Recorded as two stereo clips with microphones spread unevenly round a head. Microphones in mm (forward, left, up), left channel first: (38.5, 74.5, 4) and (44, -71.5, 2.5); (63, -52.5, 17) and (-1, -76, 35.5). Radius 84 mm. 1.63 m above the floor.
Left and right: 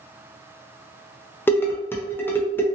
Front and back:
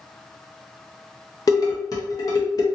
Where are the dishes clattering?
30° left, 0.6 m.